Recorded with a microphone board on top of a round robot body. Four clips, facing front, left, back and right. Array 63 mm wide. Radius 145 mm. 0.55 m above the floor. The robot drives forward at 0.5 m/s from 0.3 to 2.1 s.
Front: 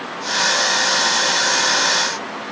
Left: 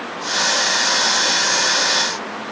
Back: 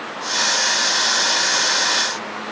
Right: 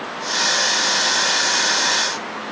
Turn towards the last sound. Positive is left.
No sound to turn to.